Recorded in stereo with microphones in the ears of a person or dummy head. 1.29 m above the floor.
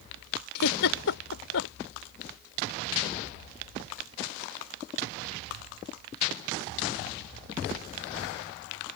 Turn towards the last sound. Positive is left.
turn(degrees=75)  # may be behind; listen again after turning